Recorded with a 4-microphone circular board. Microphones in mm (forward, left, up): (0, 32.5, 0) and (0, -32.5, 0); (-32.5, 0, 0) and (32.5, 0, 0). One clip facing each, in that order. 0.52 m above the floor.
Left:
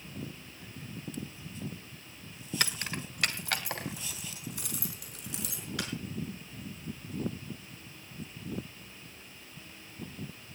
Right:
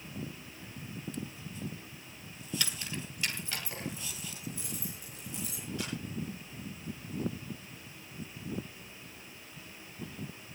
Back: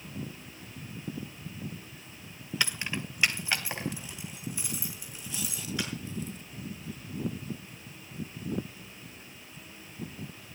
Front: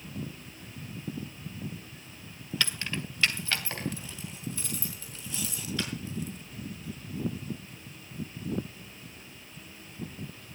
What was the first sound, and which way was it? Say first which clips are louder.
Keys jangling: left 7 dB, back 1 dB; 110° left.